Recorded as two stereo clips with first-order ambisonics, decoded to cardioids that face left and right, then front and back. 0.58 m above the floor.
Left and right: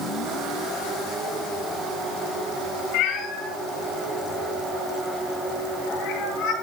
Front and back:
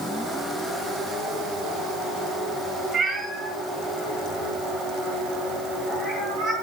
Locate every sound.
2.9 s a cat meowing: 90° left, 4.5 m; by 6.5 s 75° left, 6 m